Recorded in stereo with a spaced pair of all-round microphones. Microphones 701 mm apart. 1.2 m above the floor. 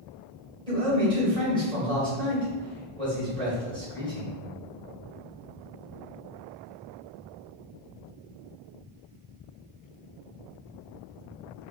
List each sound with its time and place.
0.7 s a man speaking: 5° left (ahead or behind), 1.3 m